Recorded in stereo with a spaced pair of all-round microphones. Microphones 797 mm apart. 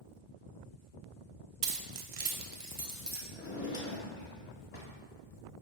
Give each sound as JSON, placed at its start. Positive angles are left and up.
{"t": 1.6, "sound": "keys jangling", "side_deg": -80, "distance_m": 0.6}
{"t": 3.3, "sound": "a drawer", "side_deg": 35, "distance_m": 1.1}